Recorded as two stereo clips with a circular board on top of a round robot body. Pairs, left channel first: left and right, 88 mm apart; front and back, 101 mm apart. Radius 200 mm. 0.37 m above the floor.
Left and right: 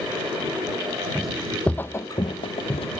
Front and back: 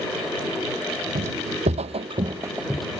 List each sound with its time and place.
1.1 s footsteps: straight behind; by 3.0 s 80° left